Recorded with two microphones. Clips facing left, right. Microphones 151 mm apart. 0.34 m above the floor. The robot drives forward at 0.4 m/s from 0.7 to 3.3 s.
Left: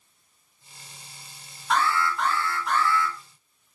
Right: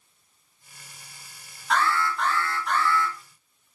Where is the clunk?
No clunk in this recording.